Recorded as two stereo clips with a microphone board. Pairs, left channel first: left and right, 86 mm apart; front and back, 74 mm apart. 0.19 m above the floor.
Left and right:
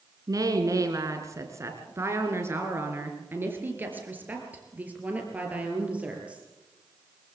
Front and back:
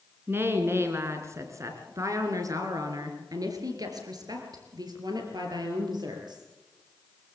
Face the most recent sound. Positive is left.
turn(degrees=-165)